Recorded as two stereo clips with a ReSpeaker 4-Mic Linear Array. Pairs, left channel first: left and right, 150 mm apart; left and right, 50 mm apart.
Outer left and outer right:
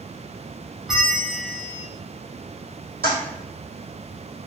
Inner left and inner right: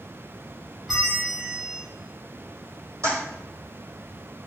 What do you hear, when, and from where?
0.9 s a bell: centre (ahead or behind), 1.2 m
3.0 s a toilet flushing: 85° right, 1.8 m